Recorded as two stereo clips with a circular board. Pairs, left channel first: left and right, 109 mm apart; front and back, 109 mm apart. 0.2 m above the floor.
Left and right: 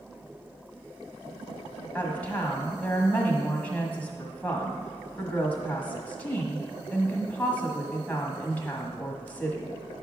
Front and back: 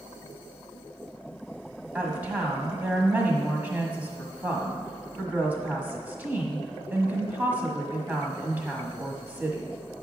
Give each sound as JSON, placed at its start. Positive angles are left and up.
{"t": 1.9, "sound": "a woman speaking", "azimuth_deg": 135, "distance_m": 1.3}